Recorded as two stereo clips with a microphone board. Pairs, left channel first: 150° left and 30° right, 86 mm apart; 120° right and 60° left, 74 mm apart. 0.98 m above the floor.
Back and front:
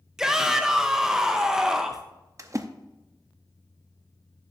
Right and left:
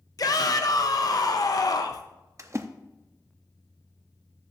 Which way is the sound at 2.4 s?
15° left.